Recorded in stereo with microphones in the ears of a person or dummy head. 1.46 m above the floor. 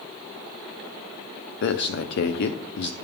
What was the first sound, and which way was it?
A man speaking, 70° left (ahead or behind).